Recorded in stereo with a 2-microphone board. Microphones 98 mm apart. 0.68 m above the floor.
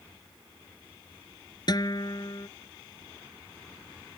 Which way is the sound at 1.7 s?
45° left (ahead or behind).